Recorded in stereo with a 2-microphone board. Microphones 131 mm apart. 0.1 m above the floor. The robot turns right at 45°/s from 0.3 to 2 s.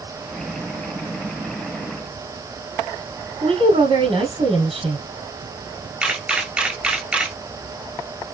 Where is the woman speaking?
50° right (ahead or behind), 3 m.